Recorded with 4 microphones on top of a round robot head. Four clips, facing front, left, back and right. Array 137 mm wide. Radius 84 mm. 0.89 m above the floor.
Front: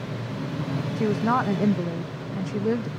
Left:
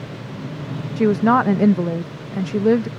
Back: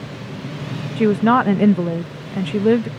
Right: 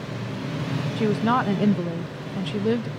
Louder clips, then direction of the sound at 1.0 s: Left 7 dB, back 9 dB; 140° left.